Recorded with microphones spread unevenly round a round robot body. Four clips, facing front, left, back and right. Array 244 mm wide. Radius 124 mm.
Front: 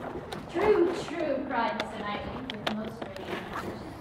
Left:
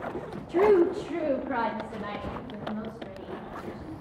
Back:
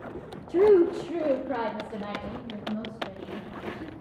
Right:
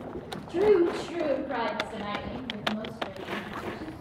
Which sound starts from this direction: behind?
A woman speaking, at 0.5 s.